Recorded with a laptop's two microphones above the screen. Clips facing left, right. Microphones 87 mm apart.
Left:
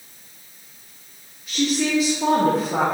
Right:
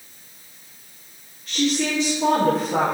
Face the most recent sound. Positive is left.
turn(degrees=5)  # may be behind; listen again after turning